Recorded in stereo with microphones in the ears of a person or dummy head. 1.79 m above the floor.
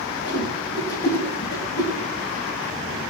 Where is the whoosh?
70° left (ahead or behind), 5 m.